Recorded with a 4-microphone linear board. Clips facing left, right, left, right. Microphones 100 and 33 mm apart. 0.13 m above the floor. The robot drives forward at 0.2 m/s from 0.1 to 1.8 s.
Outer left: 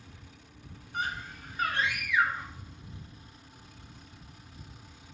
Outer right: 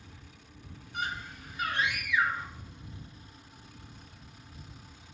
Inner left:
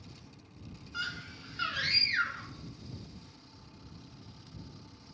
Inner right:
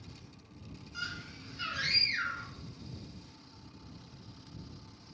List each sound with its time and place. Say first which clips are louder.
0.9 s a scream: outer left 1 dB, inner left 3 dB; 40° left (ahead or behind), 1.7 m; by 2.5 s 35° left (ahead or behind), 1.7 m